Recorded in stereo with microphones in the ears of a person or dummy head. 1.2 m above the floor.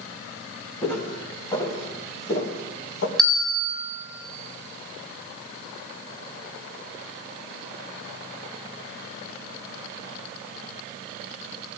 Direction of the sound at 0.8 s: 5° left (ahead or behind).